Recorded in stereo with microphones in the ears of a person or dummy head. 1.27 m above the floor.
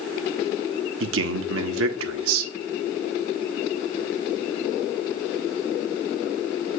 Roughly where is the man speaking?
Right.